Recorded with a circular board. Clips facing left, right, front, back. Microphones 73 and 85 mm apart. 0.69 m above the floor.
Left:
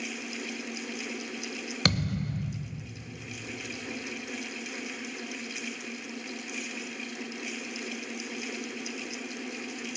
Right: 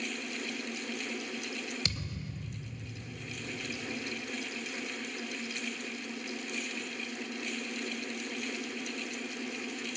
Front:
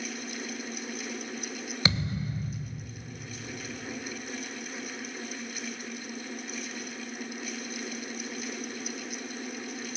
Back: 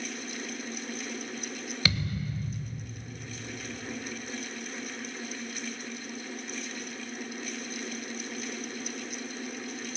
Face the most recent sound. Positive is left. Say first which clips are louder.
# left 10 dB, front 2 dB
turn(degrees=70)